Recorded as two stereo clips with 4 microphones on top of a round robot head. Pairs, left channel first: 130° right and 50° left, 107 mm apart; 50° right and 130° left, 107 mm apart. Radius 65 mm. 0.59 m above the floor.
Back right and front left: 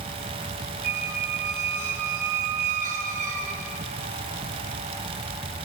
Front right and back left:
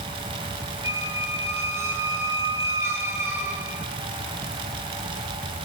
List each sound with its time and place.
0.8 s a squeak: 60° left, 7.5 m